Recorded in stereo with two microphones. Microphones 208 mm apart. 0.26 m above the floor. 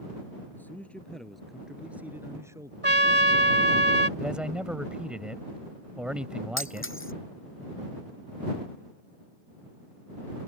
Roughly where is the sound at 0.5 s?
Centre.